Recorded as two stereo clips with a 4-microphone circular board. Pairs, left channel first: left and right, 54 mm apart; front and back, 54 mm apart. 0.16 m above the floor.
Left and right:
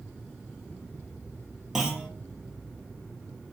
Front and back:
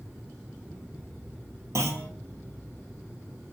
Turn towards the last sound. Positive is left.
turn(degrees=-170)